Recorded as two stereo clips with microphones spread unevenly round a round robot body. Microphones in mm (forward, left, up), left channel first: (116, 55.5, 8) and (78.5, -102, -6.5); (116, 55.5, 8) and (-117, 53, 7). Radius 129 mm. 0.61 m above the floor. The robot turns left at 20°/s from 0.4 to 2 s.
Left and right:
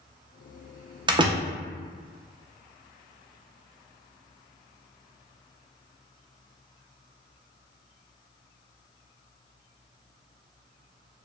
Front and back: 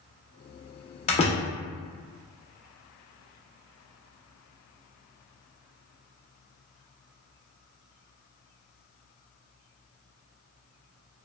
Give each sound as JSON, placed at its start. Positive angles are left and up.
{"t": 1.1, "sound": "a door slam", "azimuth_deg": -55, "distance_m": 0.6}